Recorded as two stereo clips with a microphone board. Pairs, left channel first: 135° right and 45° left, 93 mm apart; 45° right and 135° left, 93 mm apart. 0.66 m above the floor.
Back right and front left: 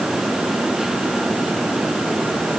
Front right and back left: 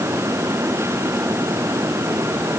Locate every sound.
Only background noise.